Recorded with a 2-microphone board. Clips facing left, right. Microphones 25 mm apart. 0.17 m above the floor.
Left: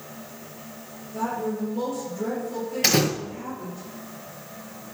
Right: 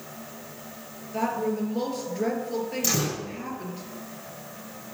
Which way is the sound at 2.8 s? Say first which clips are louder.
Left 8 dB; 60° left (ahead or behind).